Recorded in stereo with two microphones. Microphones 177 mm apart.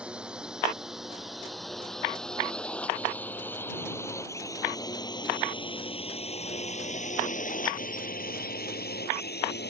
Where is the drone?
5° right (ahead or behind); by 9.7 s 75° left (ahead or behind).